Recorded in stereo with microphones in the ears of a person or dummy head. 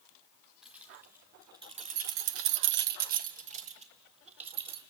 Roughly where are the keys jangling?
Centre.